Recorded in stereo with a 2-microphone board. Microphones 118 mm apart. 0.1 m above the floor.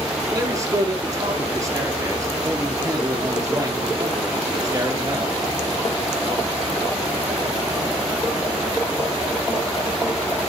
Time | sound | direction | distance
0.3 | a man speaking | 25° right (ahead or behind) | 1.9 m